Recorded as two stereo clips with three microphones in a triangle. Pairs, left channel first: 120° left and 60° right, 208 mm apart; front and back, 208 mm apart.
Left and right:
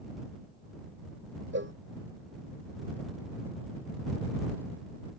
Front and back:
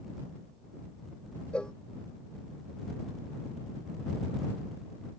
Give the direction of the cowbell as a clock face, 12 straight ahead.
3 o'clock.